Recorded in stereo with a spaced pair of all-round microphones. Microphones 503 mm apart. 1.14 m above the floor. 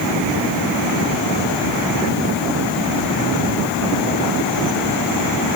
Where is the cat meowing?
I don't hear a cat meowing.